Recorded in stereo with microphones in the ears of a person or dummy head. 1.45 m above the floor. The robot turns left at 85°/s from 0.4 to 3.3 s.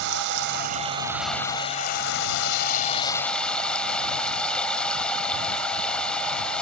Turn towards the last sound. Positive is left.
turn(degrees=5)